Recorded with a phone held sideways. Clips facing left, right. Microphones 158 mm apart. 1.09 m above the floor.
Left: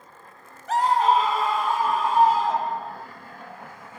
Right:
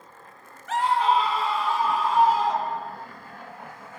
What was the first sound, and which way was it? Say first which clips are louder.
A scream: left 2 dB; 35° left (ahead or behind).